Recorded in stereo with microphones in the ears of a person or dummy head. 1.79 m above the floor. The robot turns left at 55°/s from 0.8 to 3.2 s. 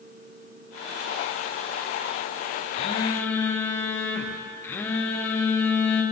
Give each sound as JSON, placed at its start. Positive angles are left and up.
{"t": 2.7, "sound": "a phone buzzing", "side_deg": 35, "distance_m": 0.8}